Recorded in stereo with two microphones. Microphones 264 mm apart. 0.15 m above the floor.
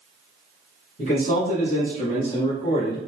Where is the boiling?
I don't hear boiling.